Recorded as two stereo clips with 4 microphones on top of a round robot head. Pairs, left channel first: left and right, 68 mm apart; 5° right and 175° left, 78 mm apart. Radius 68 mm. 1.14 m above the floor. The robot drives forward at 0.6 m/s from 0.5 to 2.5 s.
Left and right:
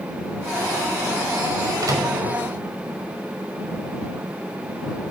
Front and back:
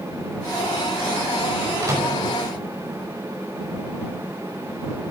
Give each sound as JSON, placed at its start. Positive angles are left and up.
{"t": 1.8, "sound": "a microwave", "azimuth_deg": -125, "distance_m": 5.5}